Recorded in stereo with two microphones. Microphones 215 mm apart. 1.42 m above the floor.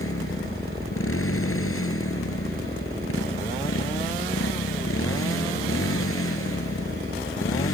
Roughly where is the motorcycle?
Left.